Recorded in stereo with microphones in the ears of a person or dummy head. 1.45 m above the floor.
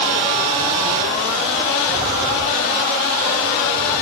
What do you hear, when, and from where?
Only background noise.